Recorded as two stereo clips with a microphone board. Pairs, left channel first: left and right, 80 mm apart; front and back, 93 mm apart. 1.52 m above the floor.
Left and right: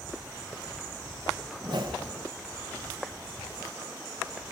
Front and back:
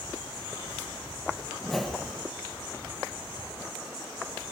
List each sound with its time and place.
1.6 s a whoosh: 90° right, 1.0 m